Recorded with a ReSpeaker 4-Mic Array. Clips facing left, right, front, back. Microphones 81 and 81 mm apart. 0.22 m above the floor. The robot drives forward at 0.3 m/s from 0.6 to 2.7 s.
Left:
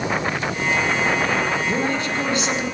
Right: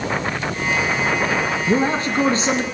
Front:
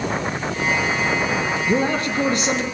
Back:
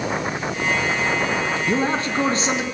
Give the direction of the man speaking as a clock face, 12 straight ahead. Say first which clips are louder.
Right 4 dB, front 2 dB; 4 o'clock.